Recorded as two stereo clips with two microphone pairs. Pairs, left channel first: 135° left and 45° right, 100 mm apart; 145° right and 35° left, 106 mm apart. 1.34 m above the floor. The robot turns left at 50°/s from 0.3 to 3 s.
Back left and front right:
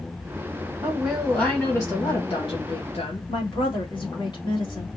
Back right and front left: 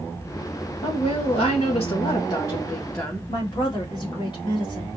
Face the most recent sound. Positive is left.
turn(degrees=175)